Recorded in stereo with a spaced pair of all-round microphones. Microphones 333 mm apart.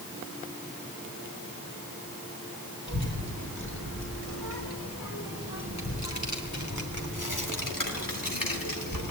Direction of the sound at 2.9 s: 35° left (ahead or behind).